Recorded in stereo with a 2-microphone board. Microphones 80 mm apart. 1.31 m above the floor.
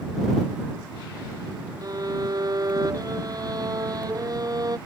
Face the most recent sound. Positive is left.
turn(degrees=-45)  # may be behind; listen again after turning